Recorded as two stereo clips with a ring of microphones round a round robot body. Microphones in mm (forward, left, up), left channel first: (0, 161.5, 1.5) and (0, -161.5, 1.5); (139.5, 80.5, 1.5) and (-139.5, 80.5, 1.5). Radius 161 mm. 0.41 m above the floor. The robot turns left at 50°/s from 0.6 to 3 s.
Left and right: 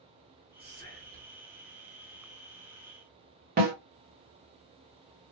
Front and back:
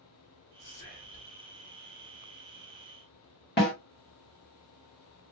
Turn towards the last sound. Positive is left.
turn(degrees=-40)